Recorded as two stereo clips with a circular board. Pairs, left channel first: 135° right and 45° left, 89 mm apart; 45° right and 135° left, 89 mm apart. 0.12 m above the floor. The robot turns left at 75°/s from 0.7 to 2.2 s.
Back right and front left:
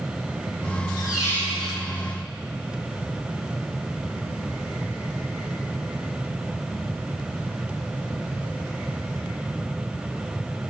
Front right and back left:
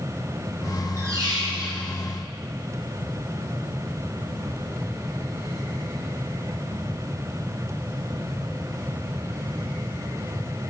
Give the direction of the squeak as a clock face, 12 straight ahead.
6 o'clock.